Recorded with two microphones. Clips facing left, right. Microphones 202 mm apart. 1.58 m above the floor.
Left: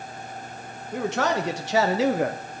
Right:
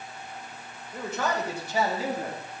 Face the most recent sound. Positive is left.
turn(degrees=80)